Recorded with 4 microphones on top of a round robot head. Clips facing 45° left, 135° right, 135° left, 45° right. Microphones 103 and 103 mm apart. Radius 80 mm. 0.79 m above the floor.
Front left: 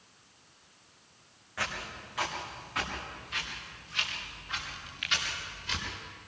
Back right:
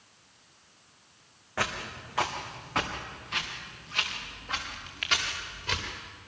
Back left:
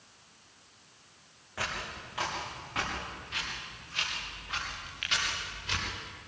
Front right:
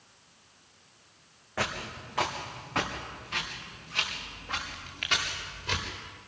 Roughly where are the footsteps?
Right.